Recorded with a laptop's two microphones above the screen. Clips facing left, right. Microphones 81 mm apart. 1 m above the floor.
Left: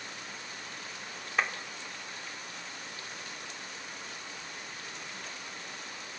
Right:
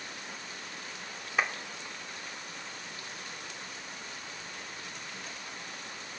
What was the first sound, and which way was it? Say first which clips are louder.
A clap: right 1 dB; centre (ahead or behind).